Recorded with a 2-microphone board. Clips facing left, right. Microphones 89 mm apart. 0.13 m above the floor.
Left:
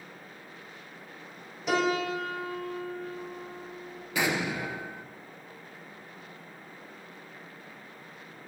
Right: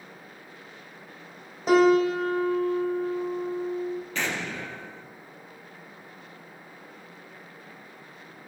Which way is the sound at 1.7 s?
40° right (ahead or behind).